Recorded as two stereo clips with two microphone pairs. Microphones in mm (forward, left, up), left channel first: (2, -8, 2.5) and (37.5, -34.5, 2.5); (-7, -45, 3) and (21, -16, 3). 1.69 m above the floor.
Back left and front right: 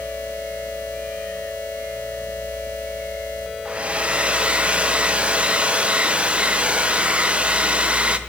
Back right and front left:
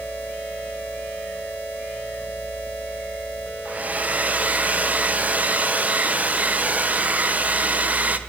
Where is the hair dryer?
10° left, 0.5 m.